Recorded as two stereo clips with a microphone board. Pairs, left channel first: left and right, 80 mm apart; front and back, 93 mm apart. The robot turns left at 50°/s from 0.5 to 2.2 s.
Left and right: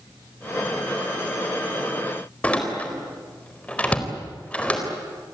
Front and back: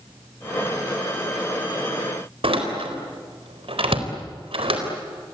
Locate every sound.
2.4 s a door slam: 165° left, 4 m